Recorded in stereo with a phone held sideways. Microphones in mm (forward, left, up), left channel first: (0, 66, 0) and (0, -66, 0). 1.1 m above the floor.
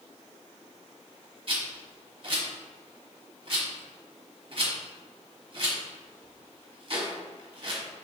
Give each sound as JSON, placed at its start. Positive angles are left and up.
{"t": 1.5, "sound": "a rattle", "side_deg": -50, "distance_m": 0.9}